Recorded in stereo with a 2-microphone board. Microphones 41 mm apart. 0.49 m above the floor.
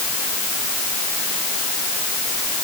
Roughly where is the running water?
No running water in this recording.